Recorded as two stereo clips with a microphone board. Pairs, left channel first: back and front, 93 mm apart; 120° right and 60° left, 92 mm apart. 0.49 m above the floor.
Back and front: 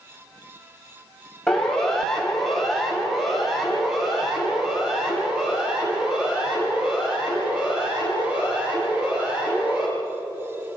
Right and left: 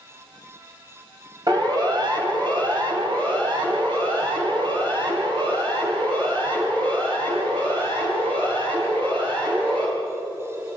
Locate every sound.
1.5 s a siren: 95° left, 4.5 m; by 9.8 s 80° left, 13 m